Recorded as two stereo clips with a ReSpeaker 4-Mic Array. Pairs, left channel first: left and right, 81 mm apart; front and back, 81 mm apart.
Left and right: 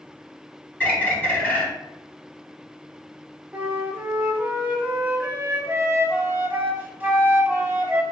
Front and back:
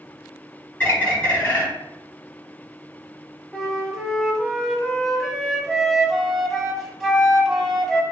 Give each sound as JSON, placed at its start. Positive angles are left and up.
{"t": 0.8, "sound": "a bird", "azimuth_deg": 40, "distance_m": 1.2}
{"t": 3.5, "sound": "a flute", "azimuth_deg": -90, "distance_m": 0.6}